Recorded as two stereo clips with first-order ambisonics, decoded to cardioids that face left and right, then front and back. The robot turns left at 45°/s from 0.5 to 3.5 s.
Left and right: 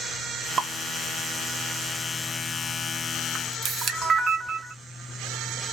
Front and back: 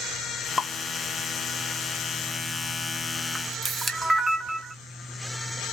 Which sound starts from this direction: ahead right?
Dripping, at 0.6 s.